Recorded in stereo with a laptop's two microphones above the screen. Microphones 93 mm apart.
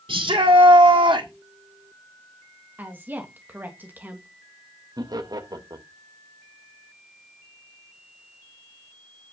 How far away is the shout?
About 2 m.